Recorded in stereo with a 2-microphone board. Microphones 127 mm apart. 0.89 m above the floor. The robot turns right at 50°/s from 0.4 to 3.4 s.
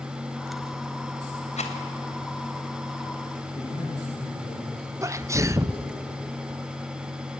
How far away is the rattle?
About 3 m.